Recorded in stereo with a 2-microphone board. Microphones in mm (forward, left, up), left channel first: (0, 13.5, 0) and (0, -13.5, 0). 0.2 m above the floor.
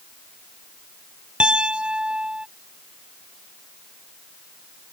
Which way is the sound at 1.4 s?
50° right (ahead or behind).